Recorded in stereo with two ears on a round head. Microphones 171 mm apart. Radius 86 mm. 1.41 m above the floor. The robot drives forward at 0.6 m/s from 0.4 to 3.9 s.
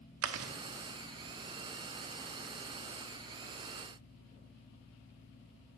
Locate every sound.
0.2 s chewing: 80° right, 0.8 m; by 0.5 s 75° right (ahead or behind), 0.8 m